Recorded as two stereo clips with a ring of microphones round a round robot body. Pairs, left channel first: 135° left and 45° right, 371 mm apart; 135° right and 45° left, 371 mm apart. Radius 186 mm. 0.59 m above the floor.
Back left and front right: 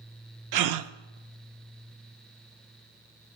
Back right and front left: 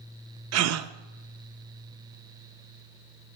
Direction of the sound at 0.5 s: 5° right.